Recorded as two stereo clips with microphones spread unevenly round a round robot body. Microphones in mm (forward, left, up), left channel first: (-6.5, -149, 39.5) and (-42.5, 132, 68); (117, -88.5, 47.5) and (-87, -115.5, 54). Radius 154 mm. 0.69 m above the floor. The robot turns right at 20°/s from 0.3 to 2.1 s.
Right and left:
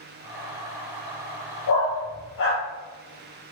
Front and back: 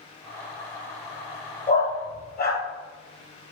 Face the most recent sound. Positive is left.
turn(degrees=-35)